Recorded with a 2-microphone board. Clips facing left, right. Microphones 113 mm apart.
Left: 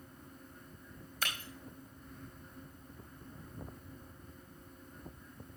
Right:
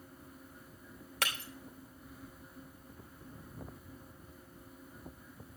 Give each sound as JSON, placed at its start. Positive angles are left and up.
{"t": 1.2, "sound": "breaking glass", "side_deg": -75, "distance_m": 3.0}